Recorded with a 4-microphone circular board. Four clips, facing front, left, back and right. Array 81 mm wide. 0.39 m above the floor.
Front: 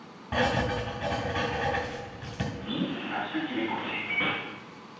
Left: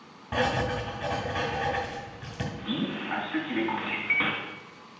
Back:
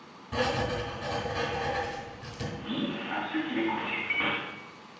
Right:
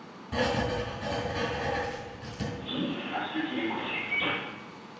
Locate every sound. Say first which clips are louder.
0.3 s writing: left 1 dB, front 2 dB; 50° left, 2.0 m
2.6 s a man speaking: left 2 dB, even; 105° left, 3 m